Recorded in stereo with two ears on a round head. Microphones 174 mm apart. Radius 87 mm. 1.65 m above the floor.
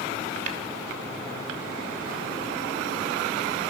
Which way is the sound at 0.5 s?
40° right (ahead or behind).